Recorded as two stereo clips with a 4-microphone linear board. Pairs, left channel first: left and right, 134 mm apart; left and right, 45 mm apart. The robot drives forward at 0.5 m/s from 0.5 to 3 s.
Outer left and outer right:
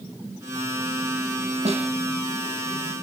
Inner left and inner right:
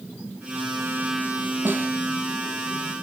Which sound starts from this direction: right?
A snare drum, at 1.6 s.